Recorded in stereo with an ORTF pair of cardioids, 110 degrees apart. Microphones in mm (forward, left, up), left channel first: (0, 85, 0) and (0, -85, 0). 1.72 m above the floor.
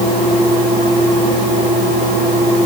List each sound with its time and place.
Only background noise.